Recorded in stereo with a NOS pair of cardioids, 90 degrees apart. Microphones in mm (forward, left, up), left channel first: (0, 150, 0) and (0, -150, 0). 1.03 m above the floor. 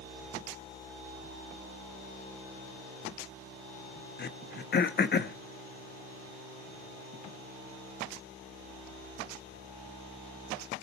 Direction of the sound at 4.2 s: 35° left.